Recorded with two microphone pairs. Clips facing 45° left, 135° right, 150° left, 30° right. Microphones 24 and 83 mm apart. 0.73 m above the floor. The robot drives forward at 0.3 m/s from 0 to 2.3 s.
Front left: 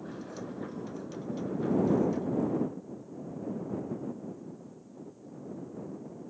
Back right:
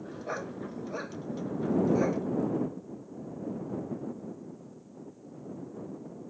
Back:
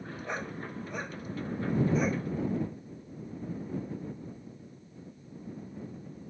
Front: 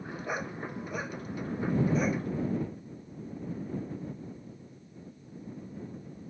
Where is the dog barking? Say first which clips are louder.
Back right 7 dB, front 2 dB; 115° right; by 2.2 s 120° right.